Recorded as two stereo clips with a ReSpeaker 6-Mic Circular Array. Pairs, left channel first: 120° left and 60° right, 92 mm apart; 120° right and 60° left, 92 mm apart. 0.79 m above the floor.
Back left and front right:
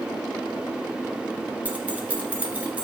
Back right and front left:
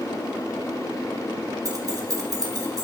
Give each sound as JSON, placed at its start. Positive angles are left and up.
{"t": 1.6, "sound": "keys jangling", "azimuth_deg": 10, "distance_m": 1.0}